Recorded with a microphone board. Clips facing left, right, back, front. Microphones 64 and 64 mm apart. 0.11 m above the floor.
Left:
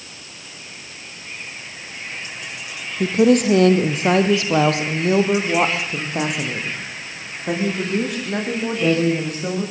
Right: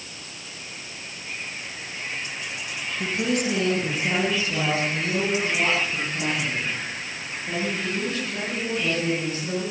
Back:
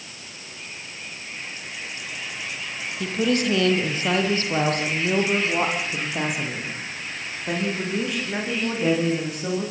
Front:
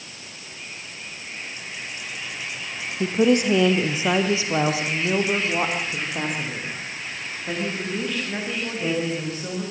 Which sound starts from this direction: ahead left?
A woman speaking, at 3.0 s.